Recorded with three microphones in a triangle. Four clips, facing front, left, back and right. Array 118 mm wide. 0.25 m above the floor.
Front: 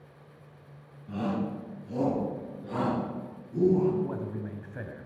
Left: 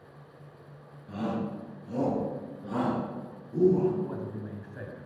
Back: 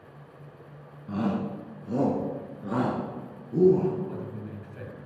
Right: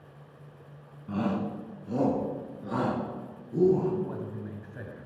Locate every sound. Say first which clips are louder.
1.1 s a shout: right 2 dB, back 2 dB; 130° right, 2.0 m; by 3.9 s 170° right, 4.5 m
4.0 s a man speaking: even, front 2 dB; 5° right, 1.7 m